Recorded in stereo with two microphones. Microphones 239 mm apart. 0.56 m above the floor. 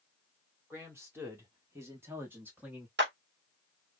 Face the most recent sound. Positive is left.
turn(degrees=-50)  # may be behind; listen again after turning